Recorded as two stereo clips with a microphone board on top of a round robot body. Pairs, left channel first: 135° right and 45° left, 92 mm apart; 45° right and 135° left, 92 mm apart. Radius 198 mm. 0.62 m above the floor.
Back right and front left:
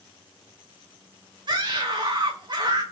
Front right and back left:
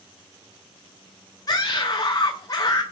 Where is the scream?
5° left, 3 m.